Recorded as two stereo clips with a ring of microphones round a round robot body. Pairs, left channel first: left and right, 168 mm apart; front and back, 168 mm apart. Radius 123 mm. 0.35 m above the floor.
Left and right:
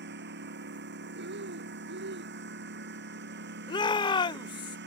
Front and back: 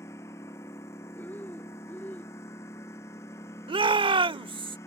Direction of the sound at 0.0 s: 80° right.